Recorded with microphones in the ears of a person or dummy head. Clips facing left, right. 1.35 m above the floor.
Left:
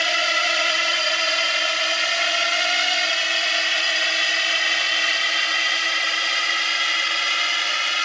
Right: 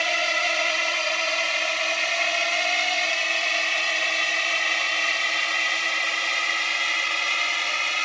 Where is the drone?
5° left (ahead or behind).